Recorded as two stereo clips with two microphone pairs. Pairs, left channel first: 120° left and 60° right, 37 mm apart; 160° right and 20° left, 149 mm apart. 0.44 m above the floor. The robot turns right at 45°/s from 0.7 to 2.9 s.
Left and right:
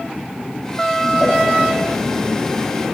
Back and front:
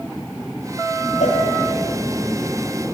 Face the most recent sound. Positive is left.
turn(degrees=-80)